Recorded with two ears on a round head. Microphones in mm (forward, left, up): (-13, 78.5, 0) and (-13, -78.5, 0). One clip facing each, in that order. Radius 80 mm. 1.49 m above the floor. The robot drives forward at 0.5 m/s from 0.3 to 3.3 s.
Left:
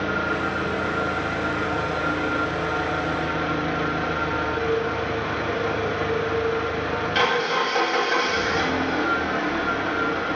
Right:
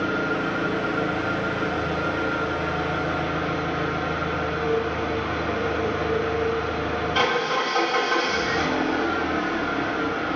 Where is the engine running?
10° left (ahead or behind), 3 m; by 10.4 s 20° left (ahead or behind), 1.6 m.